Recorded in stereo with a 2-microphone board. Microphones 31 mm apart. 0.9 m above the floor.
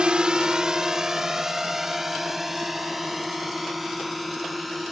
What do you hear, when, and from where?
0.0 s a drone: 35° right (ahead or behind); by 4.9 s 5° right (ahead or behind)